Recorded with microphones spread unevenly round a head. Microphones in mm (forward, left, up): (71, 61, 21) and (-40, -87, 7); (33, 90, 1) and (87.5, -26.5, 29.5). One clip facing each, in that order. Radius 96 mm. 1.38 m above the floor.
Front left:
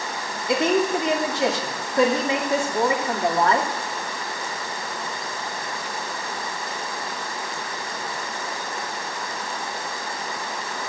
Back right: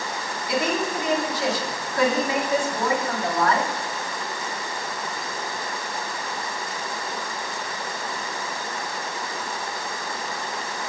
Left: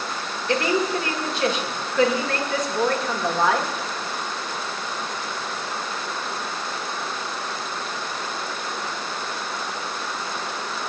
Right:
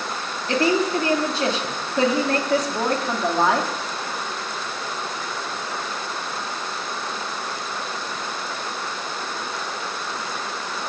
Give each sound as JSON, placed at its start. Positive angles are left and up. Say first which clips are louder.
{"t": 0.5, "sound": "a woman speaking", "louder": "front left 5 dB, right 2 dB", "azimuth_deg": -15, "distance_m": 2.5}